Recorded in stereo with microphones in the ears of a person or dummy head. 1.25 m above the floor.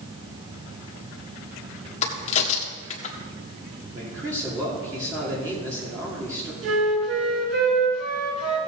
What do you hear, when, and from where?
2.0 s a crack: 35° left (ahead or behind), 1.6 m
3.9 s a man speaking: 20° right (ahead or behind), 2.5 m
6.6 s a flute: 70° right (ahead or behind), 4.5 m